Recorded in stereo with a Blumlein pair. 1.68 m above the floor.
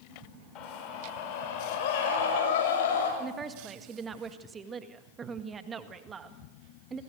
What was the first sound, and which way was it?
A scream, 35° left.